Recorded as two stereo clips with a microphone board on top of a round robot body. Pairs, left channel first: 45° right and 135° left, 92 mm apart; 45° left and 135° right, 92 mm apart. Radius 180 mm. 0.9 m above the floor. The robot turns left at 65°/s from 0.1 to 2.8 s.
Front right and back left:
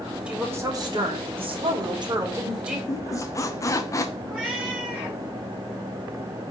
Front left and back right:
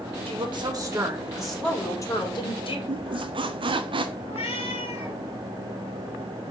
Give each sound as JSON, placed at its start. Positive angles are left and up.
{"t": 0.3, "sound": "a woman speaking", "azimuth_deg": -145, "distance_m": 2.5}
{"t": 2.9, "sound": "a squeak", "azimuth_deg": -105, "distance_m": 0.6}
{"t": 4.2, "sound": "a cat meowing", "azimuth_deg": 55, "distance_m": 2.5}